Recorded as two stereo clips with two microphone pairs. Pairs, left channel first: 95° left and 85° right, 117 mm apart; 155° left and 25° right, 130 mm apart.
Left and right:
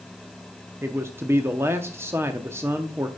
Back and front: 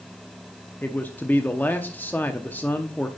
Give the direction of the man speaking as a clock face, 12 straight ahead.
5 o'clock.